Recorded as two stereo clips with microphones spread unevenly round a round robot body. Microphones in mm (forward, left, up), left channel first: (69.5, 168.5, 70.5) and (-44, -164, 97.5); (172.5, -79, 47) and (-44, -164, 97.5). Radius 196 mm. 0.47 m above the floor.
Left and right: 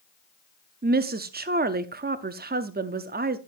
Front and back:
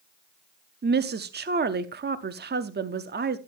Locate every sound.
0.8 s a woman speaking: 150° right, 0.8 m